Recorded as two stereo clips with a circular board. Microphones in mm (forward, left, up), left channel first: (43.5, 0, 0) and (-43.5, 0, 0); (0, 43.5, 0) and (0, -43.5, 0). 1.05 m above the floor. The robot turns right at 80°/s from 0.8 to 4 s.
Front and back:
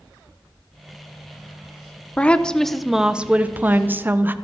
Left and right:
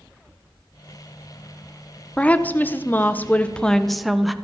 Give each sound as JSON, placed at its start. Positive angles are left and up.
{"t": 2.2, "sound": "a woman speaking", "azimuth_deg": 35, "distance_m": 0.5}